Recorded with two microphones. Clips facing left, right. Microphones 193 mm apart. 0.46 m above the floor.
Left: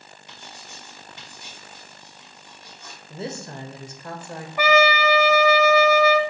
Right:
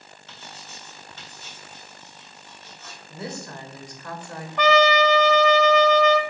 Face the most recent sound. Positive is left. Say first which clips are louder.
# right 1 dB
turn(degrees=10)  # may be behind; listen again after turning